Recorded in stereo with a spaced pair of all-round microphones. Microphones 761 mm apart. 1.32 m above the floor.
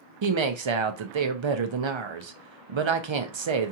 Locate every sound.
0.2 s a woman speaking: 40° right (ahead or behind), 0.5 m